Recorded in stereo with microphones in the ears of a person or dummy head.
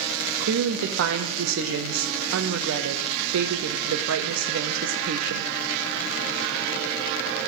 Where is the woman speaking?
75° right (ahead or behind), 0.7 m.